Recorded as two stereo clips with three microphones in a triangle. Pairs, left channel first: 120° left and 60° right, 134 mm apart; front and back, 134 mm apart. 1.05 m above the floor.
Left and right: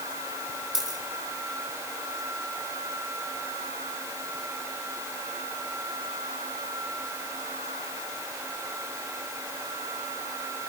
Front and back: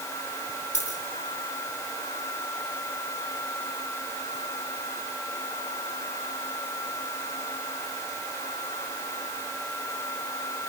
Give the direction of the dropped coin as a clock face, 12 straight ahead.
11 o'clock.